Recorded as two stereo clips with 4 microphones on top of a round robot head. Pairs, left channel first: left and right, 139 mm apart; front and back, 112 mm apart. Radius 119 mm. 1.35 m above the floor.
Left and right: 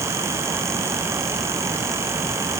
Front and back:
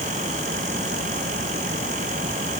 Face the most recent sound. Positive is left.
No sound to turn to.